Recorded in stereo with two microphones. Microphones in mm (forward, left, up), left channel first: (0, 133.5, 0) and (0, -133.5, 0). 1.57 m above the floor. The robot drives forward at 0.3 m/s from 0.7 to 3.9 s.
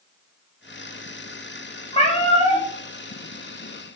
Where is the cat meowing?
25° left (ahead or behind), 0.7 m; by 2.7 s 20° left (ahead or behind), 0.8 m.